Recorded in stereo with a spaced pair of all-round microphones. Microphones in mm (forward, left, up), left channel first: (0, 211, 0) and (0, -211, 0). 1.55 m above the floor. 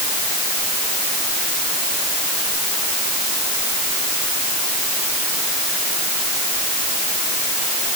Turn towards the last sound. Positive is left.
No sound to turn to.